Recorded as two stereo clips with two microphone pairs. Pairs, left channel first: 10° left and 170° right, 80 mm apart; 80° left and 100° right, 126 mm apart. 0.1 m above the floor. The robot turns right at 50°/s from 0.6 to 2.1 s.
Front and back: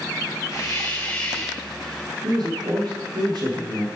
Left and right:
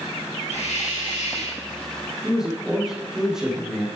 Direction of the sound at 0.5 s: 55° left.